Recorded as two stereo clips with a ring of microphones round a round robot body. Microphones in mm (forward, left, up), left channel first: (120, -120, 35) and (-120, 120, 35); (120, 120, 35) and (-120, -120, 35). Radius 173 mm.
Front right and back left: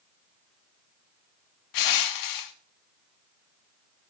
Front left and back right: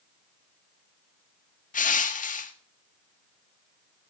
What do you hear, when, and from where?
1.7 s crushing: 20° right, 1.5 m